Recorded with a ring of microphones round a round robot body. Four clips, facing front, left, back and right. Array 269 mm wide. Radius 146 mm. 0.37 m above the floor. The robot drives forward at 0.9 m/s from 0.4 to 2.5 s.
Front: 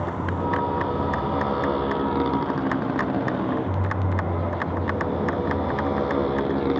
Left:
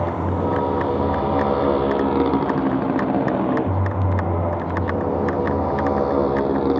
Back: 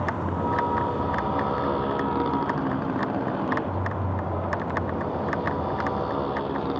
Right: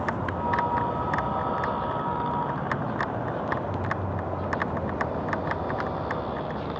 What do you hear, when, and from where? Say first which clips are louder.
0.0 s a motorcycle: left 6 dB, even; 85° left; by 6.8 s 70° left